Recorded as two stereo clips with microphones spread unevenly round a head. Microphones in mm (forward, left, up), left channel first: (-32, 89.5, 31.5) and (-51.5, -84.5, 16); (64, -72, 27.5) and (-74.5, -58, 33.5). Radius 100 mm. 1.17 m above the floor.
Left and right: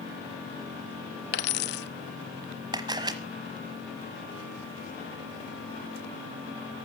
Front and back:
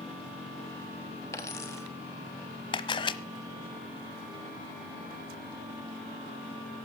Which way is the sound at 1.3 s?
70° left.